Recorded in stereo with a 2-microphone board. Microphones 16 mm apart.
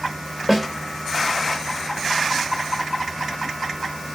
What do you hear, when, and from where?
0.5 s a snare drum: 5° right (ahead or behind), 3 m